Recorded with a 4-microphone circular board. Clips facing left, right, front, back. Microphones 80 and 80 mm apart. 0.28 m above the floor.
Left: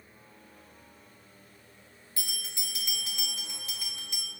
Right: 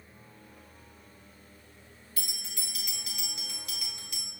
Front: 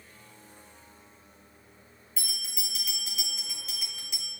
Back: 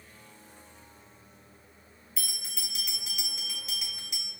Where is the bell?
95° left, 1.3 m.